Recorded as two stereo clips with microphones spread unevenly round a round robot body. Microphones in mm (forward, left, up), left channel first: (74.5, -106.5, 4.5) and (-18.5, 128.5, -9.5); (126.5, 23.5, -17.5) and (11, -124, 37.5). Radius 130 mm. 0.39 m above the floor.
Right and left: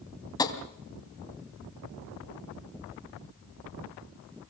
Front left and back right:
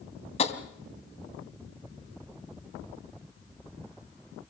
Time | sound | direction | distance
0.4 | tapping | 5° left | 2.5 m